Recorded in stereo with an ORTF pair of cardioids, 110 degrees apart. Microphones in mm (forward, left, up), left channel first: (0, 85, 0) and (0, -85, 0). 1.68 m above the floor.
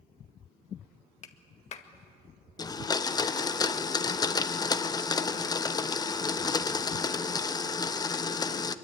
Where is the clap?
50° left, 1.8 m.